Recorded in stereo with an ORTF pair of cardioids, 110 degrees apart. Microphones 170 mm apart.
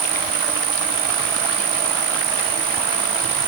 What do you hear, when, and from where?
0.0 s an insect: 60° right